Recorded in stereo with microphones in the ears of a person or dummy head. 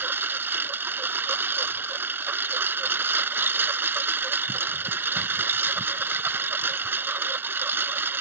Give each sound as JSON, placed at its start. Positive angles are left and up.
{"t": 0.0, "sound": "a lawn mower", "side_deg": -10}